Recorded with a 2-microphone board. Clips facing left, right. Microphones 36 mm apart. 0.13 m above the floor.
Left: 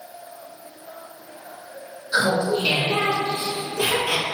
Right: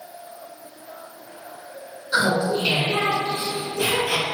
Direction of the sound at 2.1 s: 20° right (ahead or behind).